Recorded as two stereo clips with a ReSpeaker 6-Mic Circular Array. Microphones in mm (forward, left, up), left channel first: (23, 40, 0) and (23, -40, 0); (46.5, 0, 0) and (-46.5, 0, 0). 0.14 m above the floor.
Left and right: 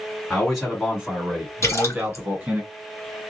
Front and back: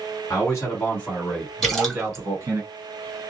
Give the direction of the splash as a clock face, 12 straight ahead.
9 o'clock.